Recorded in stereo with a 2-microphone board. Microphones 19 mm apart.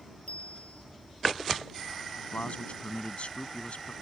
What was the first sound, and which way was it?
A bicycle bell, 80° left.